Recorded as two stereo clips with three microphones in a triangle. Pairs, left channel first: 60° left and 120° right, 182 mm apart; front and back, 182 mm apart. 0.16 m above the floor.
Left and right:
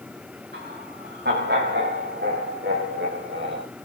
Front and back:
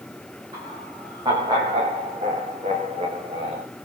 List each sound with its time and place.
0.5 s laughter: 110° right, 9 m; by 3.6 s 125° right, 8.5 m